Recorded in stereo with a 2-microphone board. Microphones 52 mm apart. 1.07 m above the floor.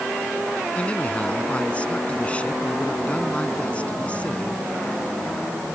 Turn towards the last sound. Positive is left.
turn(degrees=20)  # may be behind; listen again after turning